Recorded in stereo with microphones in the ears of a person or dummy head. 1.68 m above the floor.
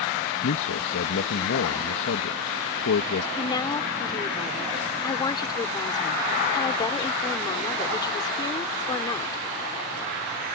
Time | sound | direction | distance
0.4 | a man speaking | 60° left (ahead or behind) | ?
3.4 | a woman speaking | 20° left (ahead or behind) | ?